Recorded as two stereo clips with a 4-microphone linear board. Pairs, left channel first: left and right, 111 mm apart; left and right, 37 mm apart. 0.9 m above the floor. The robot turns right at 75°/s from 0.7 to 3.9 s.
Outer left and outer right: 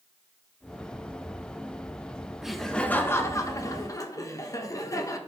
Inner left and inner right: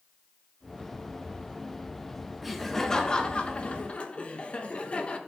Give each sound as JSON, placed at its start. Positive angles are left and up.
{"t": 2.4, "sound": "laughter", "azimuth_deg": -5, "distance_m": 0.9}